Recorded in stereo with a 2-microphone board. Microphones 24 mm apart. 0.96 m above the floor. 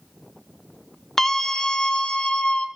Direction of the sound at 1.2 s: 15° left (ahead or behind).